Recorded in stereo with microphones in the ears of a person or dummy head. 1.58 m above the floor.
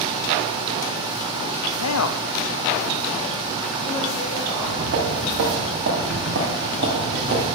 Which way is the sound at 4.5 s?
75° right (ahead or behind).